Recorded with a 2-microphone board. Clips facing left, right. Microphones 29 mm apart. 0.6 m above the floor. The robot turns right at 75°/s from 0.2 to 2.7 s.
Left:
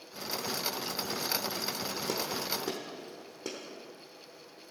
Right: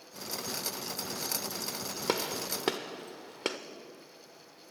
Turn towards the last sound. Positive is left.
turn(degrees=-70)  # may be behind; listen again after turning